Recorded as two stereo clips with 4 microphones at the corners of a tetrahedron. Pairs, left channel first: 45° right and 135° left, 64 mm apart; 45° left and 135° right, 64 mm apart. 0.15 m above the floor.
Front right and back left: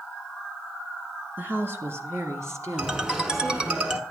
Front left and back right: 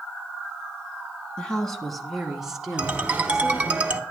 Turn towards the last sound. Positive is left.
turn(degrees=-165)